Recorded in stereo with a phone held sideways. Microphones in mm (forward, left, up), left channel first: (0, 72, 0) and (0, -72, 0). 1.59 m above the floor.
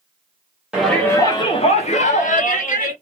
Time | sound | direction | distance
0.7 | a shout | 5° right (ahead or behind) | 0.5 m